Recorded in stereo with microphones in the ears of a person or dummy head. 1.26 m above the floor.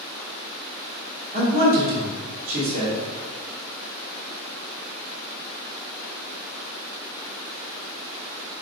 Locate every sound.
1.3 s a man speaking: 45° right (ahead or behind), 1.6 m